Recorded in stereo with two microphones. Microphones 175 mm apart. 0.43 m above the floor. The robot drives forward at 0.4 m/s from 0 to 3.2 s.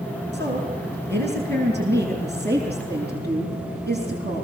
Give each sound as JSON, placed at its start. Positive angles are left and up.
{"t": 0.3, "sound": "a woman speaking", "side_deg": -80, "distance_m": 7.0}